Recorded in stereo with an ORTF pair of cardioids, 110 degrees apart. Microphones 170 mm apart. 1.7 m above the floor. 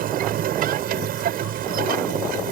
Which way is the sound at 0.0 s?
60° right.